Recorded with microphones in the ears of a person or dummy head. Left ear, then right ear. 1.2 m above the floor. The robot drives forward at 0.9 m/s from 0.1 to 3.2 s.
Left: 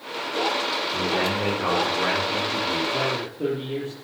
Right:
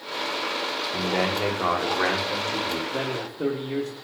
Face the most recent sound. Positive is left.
turn(degrees=-50)  # may be behind; listen again after turning